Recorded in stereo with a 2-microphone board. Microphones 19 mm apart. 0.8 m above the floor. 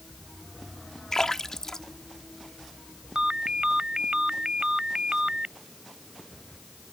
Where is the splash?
30° left (ahead or behind).